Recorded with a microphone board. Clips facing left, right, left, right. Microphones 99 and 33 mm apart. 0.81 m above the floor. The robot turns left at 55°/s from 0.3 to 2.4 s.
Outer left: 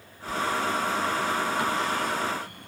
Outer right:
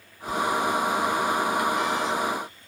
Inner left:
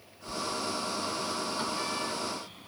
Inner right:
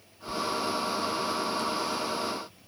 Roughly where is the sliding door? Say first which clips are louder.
Outer right 3 dB, inner right 4 dB; right.